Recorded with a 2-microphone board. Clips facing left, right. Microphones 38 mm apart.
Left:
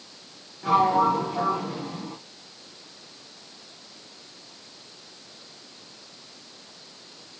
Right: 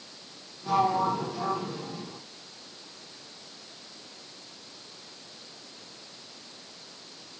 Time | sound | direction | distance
0.6 | a sliding door | 70° left (ahead or behind) | 5 m